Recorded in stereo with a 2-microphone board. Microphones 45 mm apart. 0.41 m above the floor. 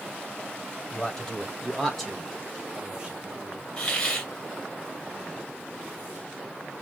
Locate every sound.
0.9 s a man speaking: 20° left (ahead or behind), 2 m; by 3.6 s 30° right (ahead or behind), 1.5 m
3.8 s a hiss: 25° left (ahead or behind), 1.8 m